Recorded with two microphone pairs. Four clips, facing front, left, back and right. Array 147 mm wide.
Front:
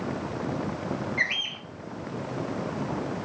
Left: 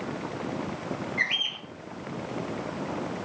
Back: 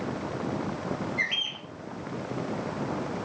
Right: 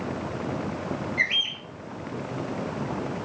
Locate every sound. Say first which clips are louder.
1.2 s a bird: right 2 dB, front 2 dB; 50° left, 1.3 m